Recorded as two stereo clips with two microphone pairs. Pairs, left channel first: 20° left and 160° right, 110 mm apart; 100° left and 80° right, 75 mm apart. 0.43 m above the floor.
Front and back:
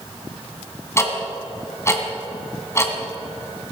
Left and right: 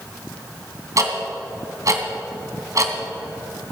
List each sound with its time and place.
1.0 s ticking: 40° right, 2 m